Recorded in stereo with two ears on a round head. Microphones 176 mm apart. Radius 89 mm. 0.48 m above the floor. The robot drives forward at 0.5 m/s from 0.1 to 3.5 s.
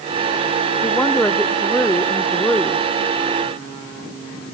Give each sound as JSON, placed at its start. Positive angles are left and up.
{"t": 0.8, "sound": "a woman speaking", "side_deg": 5}